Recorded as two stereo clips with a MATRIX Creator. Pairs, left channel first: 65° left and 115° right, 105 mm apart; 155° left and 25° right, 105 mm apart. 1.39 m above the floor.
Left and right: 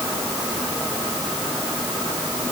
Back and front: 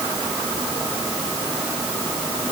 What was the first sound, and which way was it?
Only background noise.